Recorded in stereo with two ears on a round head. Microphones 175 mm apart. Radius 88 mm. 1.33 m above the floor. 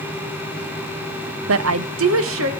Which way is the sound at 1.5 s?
70° right (ahead or behind).